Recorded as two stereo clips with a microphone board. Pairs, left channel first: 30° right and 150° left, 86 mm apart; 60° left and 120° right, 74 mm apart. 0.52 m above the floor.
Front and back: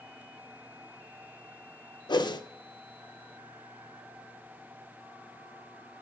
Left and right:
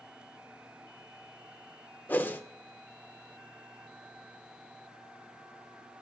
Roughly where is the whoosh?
Ahead.